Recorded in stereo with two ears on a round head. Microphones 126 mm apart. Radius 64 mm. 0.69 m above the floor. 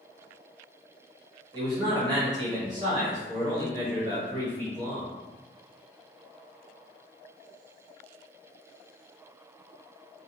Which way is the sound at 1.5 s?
30° right (ahead or behind).